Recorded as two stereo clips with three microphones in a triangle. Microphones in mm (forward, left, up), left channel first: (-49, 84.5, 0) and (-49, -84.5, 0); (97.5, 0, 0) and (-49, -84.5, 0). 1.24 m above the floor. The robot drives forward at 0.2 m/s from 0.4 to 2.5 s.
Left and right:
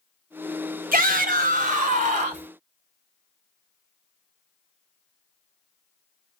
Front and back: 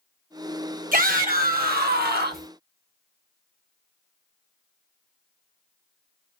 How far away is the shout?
About 0.9 m.